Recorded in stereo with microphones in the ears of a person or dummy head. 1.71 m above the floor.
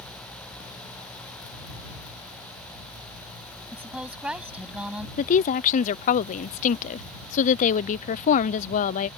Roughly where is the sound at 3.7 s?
Centre.